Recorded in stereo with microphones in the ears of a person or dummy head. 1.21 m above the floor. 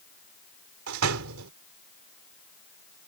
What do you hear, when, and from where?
0.9 s a door slam: 85° right